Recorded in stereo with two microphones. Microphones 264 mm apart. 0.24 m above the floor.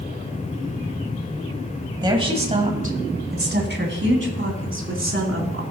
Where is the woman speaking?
15° right (ahead or behind), 1.4 m; by 5.6 s 55° right (ahead or behind), 3 m.